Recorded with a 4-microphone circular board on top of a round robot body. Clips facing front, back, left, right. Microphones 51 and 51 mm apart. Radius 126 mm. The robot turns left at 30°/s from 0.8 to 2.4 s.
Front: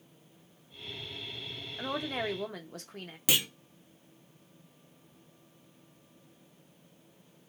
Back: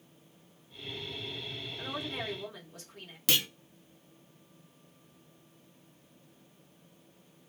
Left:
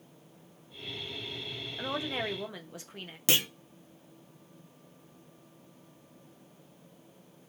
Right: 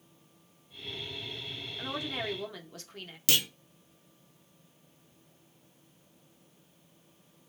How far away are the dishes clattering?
I don't hear dishes clattering.